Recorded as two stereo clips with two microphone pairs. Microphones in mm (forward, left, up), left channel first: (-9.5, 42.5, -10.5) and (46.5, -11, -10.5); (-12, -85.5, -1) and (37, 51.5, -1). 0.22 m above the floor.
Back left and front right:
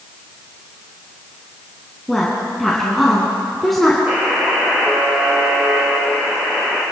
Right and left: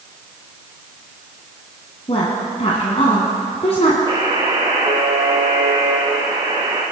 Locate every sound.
2.1 s a woman speaking: 135° right, 2 m
4.1 s a buzzer: 20° left, 4.5 m